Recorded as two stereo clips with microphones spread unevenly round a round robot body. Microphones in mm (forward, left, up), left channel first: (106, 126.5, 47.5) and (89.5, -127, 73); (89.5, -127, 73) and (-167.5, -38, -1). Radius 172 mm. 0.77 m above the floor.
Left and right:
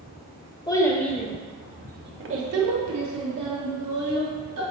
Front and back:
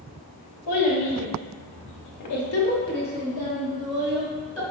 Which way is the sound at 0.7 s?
10° left.